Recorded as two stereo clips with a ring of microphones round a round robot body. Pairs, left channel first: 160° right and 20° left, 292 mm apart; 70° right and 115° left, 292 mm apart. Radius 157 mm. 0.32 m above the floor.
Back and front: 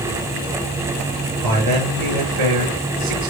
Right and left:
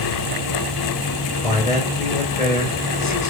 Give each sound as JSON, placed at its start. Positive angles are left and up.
{"t": 1.4, "sound": "a man speaking", "azimuth_deg": 0, "distance_m": 6.5}